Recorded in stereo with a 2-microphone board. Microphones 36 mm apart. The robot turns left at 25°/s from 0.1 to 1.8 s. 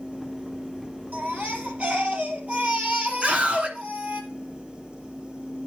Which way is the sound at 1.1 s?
60° right (ahead or behind).